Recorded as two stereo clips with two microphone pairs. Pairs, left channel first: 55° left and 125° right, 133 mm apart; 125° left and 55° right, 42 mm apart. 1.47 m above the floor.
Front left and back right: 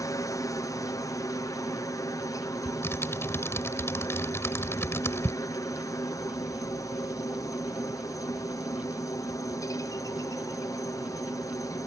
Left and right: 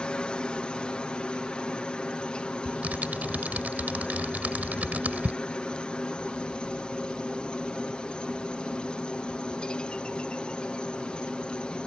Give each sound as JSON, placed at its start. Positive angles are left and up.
{"t": 0.0, "sound": "a helicopter", "azimuth_deg": 85}
{"t": 2.6, "sound": "typing on a keyboard", "azimuth_deg": -15}